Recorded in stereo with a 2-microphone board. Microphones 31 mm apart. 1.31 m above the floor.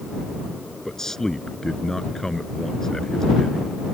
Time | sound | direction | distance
0.8 | a man speaking | 15° left (ahead or behind) | ?